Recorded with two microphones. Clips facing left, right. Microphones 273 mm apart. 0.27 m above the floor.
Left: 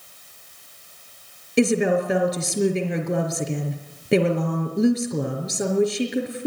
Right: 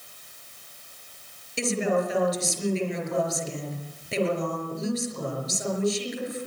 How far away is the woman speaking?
About 4.5 m.